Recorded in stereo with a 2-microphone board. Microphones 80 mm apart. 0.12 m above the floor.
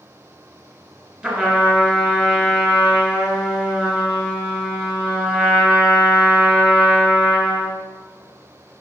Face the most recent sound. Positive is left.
turn(degrees=-15)  # may be behind; listen again after turning